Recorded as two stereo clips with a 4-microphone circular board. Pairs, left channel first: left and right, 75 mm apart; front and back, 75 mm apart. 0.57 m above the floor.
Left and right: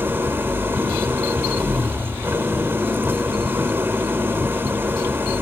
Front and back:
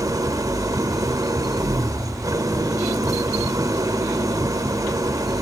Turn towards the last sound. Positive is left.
turn(degrees=-150)